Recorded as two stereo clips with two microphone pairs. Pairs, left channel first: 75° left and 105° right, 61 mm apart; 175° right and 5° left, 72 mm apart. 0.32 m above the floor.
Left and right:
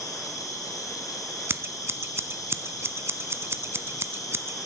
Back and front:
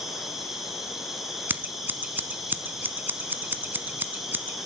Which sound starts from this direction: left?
An insect, at 0.0 s.